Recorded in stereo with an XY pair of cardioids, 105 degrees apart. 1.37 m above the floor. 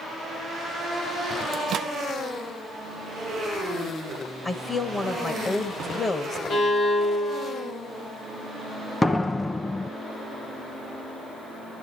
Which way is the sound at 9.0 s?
15° left.